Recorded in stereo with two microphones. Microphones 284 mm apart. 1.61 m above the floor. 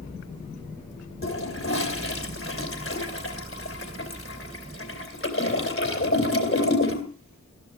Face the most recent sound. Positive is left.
turn(degrees=50)  # may be behind; listen again after turning